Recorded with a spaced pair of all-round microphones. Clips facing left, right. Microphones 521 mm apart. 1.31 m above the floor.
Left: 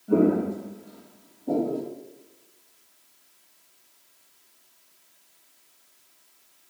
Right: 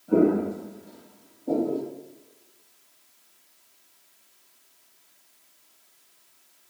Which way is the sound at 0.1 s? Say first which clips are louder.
Even; 40° left (ahead or behind).